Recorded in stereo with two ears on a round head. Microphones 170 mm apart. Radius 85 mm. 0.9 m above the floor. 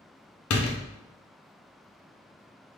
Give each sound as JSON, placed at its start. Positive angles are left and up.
{"t": 0.5, "sound": "a door slam", "side_deg": 80, "distance_m": 0.6}